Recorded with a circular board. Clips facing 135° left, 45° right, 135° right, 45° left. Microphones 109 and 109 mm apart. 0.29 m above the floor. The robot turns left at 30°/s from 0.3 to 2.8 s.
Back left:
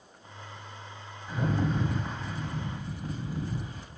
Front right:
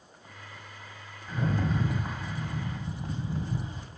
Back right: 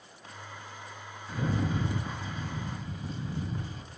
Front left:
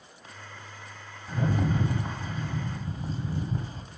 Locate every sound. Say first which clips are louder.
1.3 s a rattle: back left 1 dB, front left 3 dB; 55° left, 1.4 m; by 3.8 s 10° left, 1.4 m